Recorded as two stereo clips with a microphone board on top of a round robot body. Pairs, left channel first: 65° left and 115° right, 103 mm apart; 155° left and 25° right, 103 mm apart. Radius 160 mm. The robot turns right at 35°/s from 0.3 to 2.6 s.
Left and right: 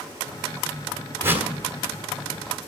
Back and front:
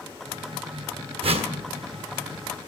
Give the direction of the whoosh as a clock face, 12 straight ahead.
2 o'clock.